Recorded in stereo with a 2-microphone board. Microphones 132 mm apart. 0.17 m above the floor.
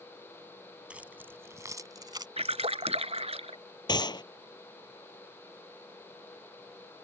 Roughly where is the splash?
Right.